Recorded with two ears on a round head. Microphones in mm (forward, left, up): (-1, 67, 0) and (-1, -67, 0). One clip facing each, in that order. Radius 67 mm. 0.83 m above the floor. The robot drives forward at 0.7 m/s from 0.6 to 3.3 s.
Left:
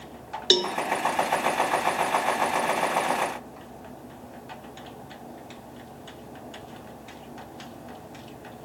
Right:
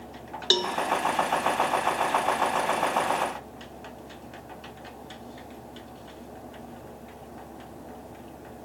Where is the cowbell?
20° left (ahead or behind), 0.6 m.